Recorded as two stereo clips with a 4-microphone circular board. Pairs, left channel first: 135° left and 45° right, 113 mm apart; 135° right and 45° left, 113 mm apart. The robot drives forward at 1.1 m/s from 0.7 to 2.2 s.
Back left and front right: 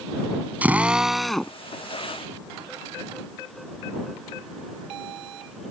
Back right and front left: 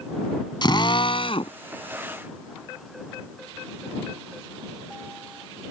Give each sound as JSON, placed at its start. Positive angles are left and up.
{"t": 0.6, "sound": "a drill", "azimuth_deg": -115}